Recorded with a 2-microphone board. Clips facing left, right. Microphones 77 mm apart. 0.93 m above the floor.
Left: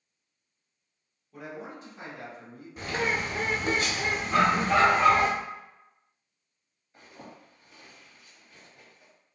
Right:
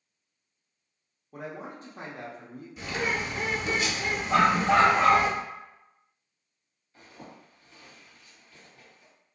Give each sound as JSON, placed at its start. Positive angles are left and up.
{"t": 1.3, "sound": "a man speaking", "side_deg": -40, "distance_m": 1.0}
{"t": 2.8, "sound": "a bird", "side_deg": 45, "distance_m": 0.7}
{"t": 4.3, "sound": "a dog barking", "side_deg": -75, "distance_m": 1.0}
{"t": 6.9, "sound": "a zipper", "side_deg": 20, "distance_m": 1.8}